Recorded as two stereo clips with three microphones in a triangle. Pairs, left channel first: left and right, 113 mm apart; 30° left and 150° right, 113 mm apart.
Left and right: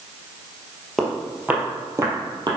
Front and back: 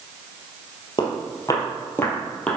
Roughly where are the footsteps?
Ahead.